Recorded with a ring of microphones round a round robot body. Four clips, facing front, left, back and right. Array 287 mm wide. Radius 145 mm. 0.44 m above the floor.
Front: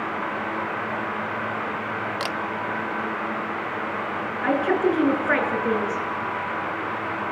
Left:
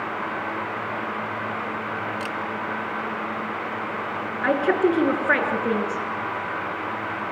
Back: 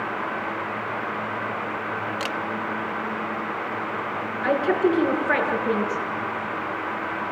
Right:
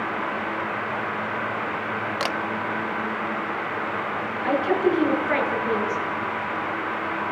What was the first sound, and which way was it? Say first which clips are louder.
A camera shutter: right 3 dB, even; 80° right.